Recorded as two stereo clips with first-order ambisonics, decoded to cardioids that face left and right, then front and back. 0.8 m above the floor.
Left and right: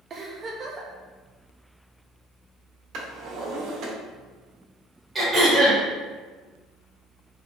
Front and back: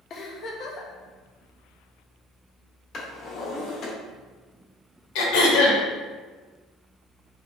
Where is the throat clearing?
15° right, 1.1 m.